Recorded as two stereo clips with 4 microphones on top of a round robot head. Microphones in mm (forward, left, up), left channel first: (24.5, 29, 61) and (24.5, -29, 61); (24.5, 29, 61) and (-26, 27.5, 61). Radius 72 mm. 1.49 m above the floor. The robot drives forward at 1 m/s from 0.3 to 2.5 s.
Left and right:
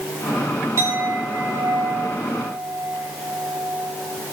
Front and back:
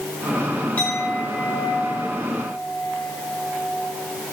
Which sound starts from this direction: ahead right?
A clink, at 0.8 s.